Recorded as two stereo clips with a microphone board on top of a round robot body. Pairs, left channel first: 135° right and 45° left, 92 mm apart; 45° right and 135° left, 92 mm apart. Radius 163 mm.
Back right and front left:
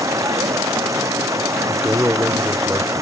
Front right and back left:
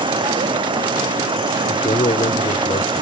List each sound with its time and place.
0.0 s running water: 100° left
1.7 s a man speaking: 30° right